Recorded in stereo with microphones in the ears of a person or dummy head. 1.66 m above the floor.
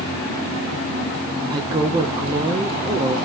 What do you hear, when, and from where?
1.5 s a woman speaking: 25° right (ahead or behind), 0.7 m